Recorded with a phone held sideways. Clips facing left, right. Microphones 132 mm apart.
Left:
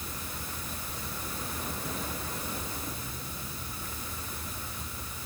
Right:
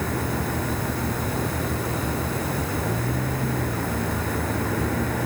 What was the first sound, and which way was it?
A vehicle, 85° right.